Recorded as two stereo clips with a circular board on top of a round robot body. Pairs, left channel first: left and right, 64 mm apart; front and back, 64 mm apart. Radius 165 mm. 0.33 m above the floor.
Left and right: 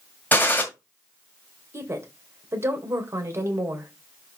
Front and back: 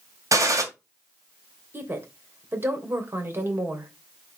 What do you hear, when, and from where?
0.3 s a gunshot: 150° left, 2 m
1.7 s a woman speaking: 130° right, 2.5 m